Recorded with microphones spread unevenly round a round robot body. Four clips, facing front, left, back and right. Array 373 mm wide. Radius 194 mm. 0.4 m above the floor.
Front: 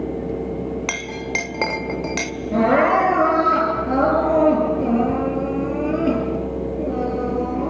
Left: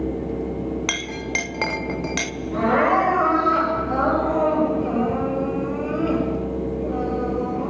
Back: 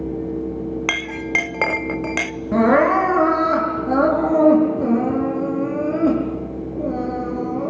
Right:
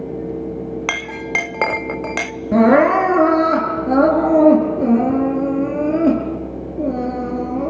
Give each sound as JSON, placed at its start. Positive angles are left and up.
{"t": 0.9, "sound": "a clink", "azimuth_deg": -100, "distance_m": 0.7}
{"t": 2.5, "sound": "crying", "azimuth_deg": -95, "distance_m": 8.0}